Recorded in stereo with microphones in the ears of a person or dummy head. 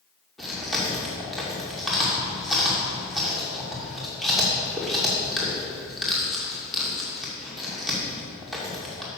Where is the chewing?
Centre (ahead or behind), 2.5 m.